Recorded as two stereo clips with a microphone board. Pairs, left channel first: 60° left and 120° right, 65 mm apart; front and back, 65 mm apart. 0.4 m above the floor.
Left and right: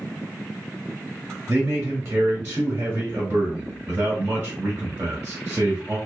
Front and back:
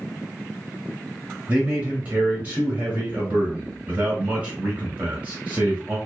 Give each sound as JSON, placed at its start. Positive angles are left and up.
{"t": 1.5, "sound": "a man speaking", "azimuth_deg": -145, "distance_m": 1.1}